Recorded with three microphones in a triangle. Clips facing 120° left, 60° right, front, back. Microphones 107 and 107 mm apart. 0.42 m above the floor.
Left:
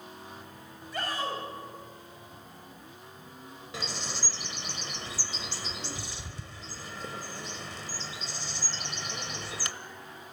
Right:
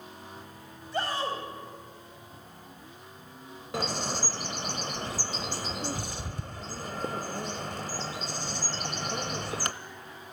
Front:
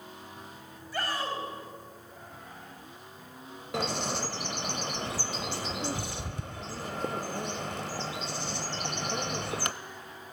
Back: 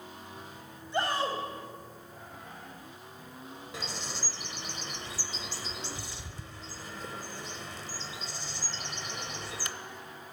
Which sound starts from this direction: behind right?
A shout, at 0.9 s.